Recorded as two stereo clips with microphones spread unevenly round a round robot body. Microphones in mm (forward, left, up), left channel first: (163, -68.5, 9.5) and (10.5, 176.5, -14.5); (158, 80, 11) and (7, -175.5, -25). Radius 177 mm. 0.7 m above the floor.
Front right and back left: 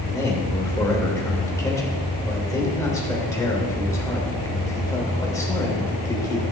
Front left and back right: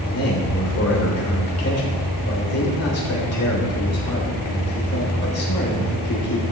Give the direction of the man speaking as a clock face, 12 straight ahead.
11 o'clock.